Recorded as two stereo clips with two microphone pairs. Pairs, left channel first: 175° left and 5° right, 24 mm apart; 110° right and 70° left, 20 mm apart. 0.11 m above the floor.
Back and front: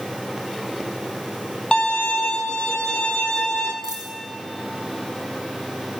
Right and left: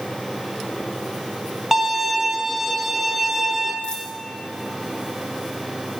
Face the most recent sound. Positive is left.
turn(degrees=-55)